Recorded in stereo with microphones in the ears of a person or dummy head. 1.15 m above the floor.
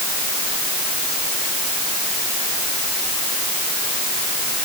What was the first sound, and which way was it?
Only background noise.